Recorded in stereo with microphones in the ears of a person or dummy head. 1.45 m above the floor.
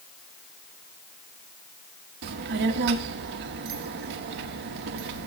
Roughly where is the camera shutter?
No camera shutter in this recording.